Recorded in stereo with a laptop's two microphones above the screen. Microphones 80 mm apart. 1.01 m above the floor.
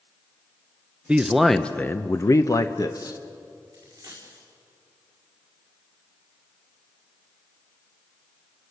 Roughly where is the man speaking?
Centre.